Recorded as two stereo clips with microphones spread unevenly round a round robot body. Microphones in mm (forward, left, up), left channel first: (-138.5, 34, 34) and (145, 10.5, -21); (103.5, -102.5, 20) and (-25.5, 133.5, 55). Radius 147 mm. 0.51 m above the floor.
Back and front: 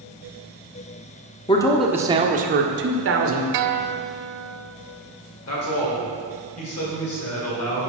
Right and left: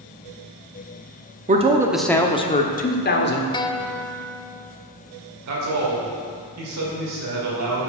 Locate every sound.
1.5 s a man speaking: 105° left, 0.7 m; by 3.4 s 25° right, 1.4 m
3.5 s a guitar: 15° left, 0.6 m
5.5 s a man speaking: 135° left, 2 m